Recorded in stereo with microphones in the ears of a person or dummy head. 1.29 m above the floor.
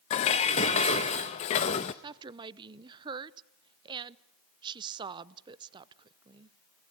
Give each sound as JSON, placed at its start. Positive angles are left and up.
{"t": 0.1, "sound": "dishes clattering", "side_deg": 30, "distance_m": 0.6}
{"t": 2.0, "sound": "a woman speaking", "side_deg": -25, "distance_m": 0.7}